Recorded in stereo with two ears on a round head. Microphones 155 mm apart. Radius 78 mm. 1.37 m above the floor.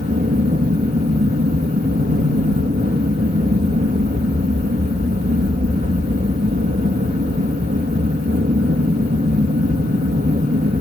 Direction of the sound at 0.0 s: 45° right (ahead or behind).